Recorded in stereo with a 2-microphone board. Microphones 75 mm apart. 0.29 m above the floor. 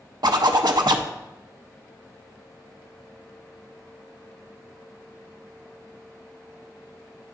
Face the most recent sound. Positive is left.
turn(degrees=-75)  # may be behind; listen again after turning